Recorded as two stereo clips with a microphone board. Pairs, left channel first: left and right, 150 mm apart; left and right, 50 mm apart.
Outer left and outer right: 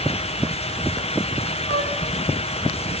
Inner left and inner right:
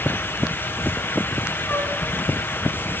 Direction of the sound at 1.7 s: 40° left (ahead or behind).